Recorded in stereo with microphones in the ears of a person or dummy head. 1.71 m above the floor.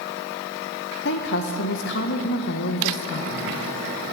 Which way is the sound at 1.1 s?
60° left (ahead or behind).